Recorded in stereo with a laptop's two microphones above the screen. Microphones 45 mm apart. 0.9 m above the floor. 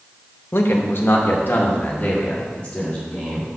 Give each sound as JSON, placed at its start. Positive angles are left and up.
{"t": 0.5, "sound": "a man speaking", "side_deg": 60, "distance_m": 1.1}